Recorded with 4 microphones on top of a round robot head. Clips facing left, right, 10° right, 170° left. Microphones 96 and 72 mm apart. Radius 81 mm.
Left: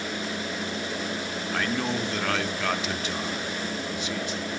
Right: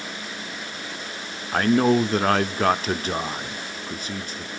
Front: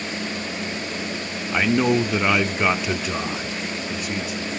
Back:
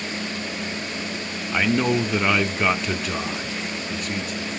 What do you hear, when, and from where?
1.5 s a man speaking: 90° right, 0.9 m